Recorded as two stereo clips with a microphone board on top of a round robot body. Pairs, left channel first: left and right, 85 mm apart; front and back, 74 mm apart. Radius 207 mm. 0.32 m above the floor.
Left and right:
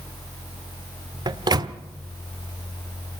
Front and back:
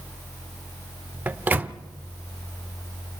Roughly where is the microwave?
Behind right.